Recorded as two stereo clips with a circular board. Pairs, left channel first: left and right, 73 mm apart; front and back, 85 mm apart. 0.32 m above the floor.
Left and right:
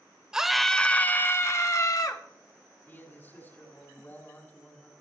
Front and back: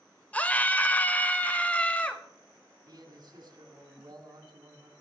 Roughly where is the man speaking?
Behind left.